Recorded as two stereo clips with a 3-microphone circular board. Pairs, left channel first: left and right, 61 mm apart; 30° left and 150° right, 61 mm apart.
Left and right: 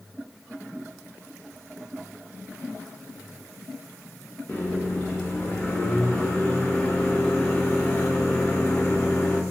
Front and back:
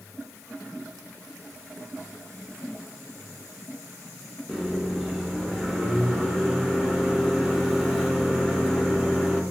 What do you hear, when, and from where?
4.5 s a microwave: 120° left, 0.6 m